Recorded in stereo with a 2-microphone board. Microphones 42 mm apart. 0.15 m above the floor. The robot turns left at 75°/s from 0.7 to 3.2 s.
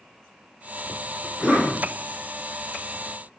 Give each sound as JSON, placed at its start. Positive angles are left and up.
{"t": 1.2, "sound": "a cough", "azimuth_deg": -15, "distance_m": 1.4}